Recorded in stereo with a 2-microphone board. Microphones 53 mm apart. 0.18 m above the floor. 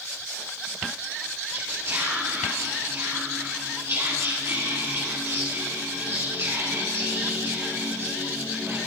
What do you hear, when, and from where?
1.5 s whispering: 50° right (ahead or behind), 4.5 m